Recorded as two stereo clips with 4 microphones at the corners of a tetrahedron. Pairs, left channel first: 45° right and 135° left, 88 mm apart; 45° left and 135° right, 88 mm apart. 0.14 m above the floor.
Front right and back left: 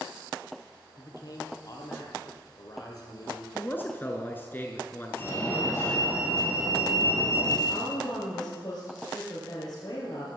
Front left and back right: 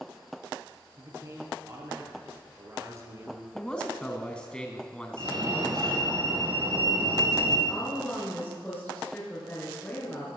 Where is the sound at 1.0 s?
80° right, 3.5 m.